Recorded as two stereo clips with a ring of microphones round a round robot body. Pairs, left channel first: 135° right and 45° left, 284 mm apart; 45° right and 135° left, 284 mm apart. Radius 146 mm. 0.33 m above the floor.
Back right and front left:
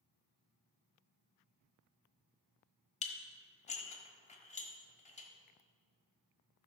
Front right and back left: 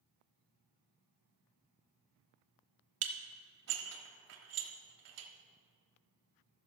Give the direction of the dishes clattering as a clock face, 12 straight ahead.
7 o'clock.